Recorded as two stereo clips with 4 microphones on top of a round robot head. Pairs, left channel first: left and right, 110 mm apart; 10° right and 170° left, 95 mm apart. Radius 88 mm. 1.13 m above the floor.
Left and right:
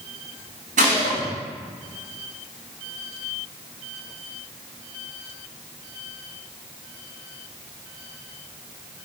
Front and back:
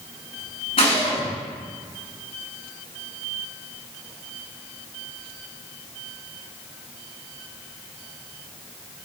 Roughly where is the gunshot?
Ahead right.